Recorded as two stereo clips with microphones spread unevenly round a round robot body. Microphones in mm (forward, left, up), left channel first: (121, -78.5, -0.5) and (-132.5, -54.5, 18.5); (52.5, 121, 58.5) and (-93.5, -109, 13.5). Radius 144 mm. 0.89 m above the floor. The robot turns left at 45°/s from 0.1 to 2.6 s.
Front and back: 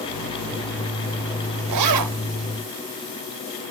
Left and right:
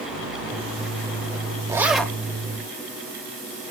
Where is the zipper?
165° left, 0.7 m; by 2.2 s 140° left, 0.7 m.